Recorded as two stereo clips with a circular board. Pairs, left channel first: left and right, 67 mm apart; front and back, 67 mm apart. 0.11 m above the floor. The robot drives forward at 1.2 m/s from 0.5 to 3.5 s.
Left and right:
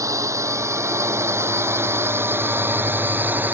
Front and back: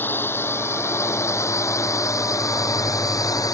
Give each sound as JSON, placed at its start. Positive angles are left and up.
{"t": 0.0, "sound": "a drone", "azimuth_deg": -60}